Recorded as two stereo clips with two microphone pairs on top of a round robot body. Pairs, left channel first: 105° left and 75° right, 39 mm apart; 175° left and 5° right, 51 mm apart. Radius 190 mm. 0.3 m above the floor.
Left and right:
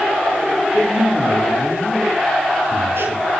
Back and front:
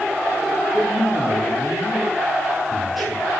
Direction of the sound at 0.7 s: 95° right.